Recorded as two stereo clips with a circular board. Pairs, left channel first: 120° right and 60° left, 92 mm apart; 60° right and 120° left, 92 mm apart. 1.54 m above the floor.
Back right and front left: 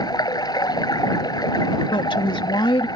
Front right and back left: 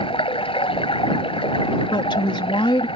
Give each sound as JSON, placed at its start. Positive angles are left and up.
{"t": 0.0, "sound": "running water", "azimuth_deg": -75}
{"t": 1.9, "sound": "a woman speaking", "azimuth_deg": -90}